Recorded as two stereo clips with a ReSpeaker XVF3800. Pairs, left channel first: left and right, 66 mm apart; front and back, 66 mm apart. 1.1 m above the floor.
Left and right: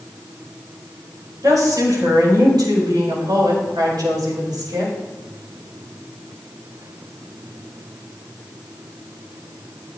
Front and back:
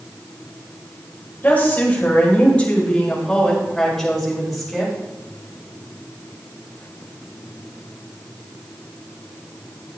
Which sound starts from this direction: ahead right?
A woman speaking, at 1.4 s.